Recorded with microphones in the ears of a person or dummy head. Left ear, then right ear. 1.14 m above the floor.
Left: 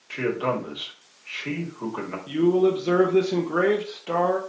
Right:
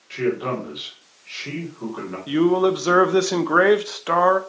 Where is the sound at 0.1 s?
15° left (ahead or behind), 2.5 m.